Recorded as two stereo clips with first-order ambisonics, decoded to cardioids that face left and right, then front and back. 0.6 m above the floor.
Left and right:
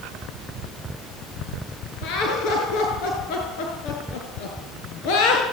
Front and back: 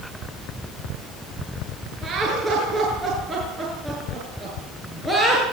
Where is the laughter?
120° left, 7.5 m; by 5.4 s 100° left, 8 m.